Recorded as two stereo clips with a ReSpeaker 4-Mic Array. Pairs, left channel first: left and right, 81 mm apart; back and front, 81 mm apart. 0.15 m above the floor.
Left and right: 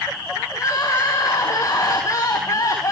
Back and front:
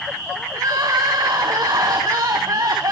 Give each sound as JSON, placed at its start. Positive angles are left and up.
{"t": 0.5, "sound": "crying", "azimuth_deg": 40, "distance_m": 4.5}